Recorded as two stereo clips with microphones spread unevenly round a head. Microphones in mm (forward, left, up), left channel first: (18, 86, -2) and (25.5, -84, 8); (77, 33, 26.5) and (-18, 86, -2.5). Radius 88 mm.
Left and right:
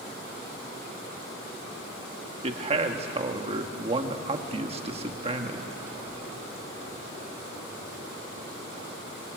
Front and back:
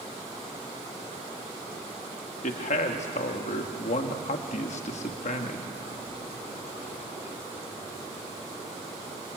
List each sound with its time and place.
2.4 s a man speaking: 30° right, 1.8 m